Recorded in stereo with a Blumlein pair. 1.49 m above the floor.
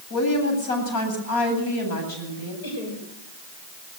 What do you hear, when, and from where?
0.1 s a woman speaking: 55° left, 9 m
2.6 s laughter: 60° left, 7 m